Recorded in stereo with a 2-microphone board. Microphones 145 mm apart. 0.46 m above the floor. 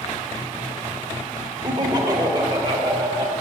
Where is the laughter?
30° right (ahead or behind), 1.2 m; by 3.3 s 25° right (ahead or behind), 2.5 m.